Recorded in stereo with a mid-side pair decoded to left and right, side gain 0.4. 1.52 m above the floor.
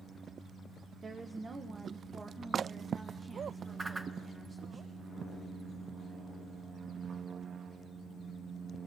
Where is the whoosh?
30° right, 1.4 m.